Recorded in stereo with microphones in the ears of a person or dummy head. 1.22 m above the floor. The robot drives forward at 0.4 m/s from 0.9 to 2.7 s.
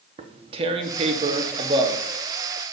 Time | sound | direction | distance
0.2 | tearing paper | 30° right (ahead or behind) | 0.6 m